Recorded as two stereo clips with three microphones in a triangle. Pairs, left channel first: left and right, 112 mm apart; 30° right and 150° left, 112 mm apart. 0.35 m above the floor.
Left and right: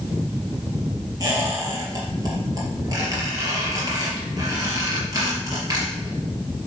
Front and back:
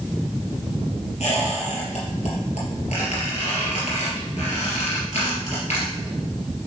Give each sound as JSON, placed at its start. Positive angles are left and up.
{"t": 1.2, "sound": "a squeak", "azimuth_deg": -35, "distance_m": 3.5}